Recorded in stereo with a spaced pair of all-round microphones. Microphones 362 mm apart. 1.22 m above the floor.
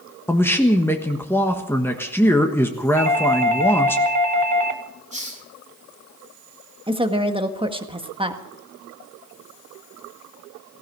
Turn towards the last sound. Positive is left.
turn(degrees=-15)  # may be behind; listen again after turning